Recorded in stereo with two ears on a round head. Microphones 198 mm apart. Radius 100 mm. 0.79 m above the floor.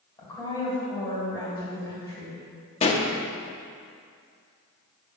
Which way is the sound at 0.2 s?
15° left (ahead or behind).